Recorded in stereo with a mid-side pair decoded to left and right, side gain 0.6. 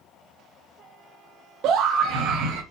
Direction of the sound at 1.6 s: 65° right.